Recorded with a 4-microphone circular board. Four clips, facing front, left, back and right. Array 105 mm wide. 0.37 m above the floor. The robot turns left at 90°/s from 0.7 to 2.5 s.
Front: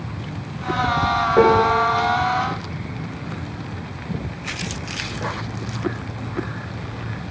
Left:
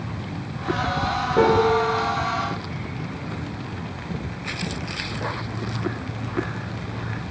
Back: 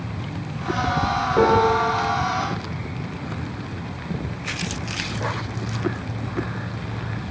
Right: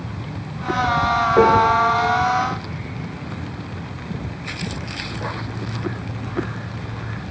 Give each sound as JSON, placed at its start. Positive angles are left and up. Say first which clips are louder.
{"t": 1.4, "sound": "a piano", "louder": "right 2 dB, front 2 dB", "azimuth_deg": -50, "distance_m": 1.3}